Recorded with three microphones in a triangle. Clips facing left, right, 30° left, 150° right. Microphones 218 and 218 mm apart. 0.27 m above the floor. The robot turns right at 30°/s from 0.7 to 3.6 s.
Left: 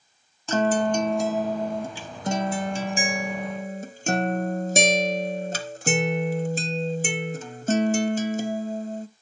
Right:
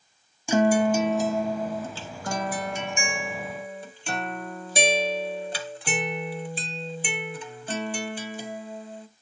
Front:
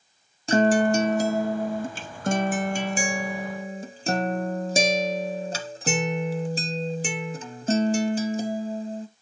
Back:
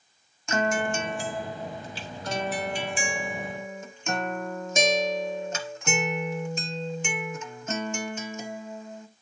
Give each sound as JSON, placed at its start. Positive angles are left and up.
{"t": 0.5, "sound": "a guitar", "azimuth_deg": -15, "distance_m": 0.6}